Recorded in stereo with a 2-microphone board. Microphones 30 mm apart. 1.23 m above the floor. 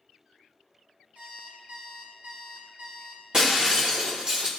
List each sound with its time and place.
1.1 s an alarm clock: 50° right (ahead or behind), 2.5 m
3.3 s breaking glass: 25° right (ahead or behind), 1.5 m